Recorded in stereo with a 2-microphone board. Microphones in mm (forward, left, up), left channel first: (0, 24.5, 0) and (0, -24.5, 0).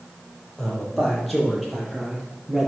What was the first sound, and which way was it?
A man speaking, 5° left (ahead or behind).